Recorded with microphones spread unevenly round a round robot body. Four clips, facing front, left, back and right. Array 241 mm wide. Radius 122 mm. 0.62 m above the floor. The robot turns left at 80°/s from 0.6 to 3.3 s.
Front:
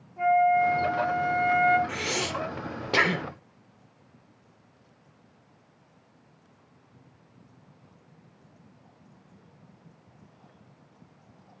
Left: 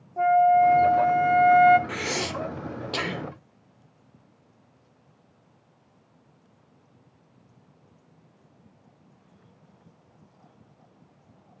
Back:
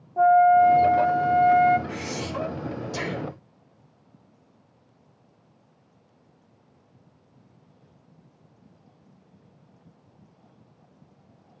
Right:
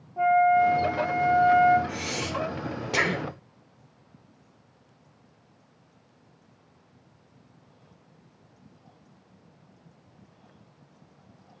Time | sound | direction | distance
0.2 | a flute | 165° left | 0.6 m
1.9 | breathing | 75° left | 0.8 m